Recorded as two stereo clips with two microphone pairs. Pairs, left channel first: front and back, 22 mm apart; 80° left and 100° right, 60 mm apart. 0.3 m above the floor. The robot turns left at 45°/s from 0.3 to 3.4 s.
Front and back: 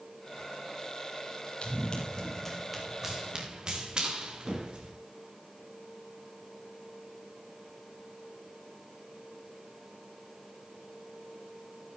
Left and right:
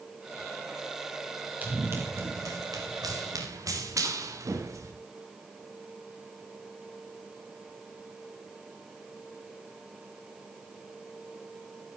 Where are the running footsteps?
40° right, 4.5 m; by 4.9 s 135° right, 3.5 m.